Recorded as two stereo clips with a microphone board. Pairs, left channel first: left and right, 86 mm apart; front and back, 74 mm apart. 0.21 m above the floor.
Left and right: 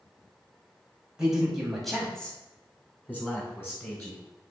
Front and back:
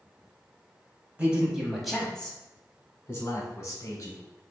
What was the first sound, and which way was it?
A man speaking, 150° right.